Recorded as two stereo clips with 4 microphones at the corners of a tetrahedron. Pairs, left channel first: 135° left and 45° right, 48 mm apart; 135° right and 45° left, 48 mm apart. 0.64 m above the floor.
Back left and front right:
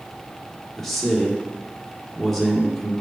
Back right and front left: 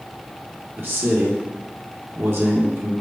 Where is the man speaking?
55° left, 1.6 m.